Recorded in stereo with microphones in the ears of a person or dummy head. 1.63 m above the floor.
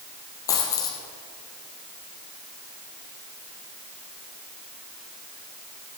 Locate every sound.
0.5 s a dropped coin: 15° left (ahead or behind), 2.5 m